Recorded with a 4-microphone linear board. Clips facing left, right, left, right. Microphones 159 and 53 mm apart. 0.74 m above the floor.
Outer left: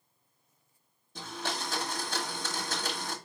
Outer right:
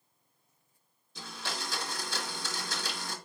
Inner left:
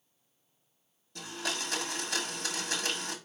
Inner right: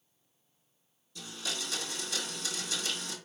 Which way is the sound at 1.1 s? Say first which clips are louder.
Outer left 4 dB, inner left 3 dB; 50° left (ahead or behind).